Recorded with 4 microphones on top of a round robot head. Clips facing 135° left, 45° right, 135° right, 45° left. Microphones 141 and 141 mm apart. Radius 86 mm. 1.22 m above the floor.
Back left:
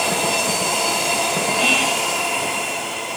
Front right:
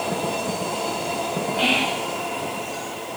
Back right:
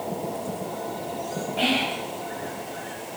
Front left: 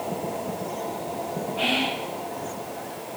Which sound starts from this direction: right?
Whispering, at 1.6 s.